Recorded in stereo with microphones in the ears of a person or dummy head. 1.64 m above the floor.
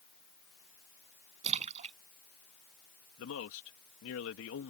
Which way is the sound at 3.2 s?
80° left.